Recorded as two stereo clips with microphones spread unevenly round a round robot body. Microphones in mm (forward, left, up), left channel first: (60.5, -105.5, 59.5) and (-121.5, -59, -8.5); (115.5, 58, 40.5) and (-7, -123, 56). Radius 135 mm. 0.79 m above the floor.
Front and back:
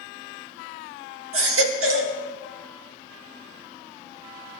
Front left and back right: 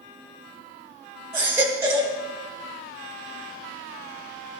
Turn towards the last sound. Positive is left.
turn(degrees=155)